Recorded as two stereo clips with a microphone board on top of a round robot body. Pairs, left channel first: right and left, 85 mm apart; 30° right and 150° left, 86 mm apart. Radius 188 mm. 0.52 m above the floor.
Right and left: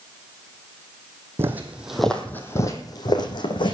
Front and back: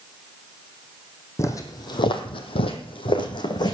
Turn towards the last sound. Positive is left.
turn(degrees=-70)